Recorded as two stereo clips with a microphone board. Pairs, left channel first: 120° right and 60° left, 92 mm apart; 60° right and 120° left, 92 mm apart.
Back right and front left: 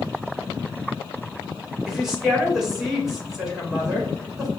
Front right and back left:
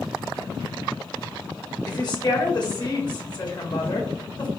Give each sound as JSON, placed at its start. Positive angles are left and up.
{"t": 1.9, "sound": "a woman speaking", "azimuth_deg": -25, "distance_m": 1.4}